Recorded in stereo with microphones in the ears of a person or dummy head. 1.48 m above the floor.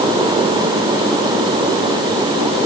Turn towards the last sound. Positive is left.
No sound to turn to.